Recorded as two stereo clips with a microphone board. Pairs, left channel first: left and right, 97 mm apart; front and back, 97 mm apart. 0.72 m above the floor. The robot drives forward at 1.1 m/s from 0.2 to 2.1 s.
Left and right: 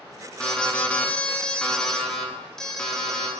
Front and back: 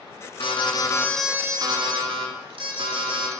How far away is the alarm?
About 1.0 m.